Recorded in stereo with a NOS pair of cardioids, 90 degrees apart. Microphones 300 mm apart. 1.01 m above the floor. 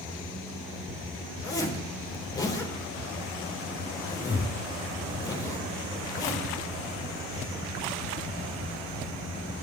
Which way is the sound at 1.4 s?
15° left.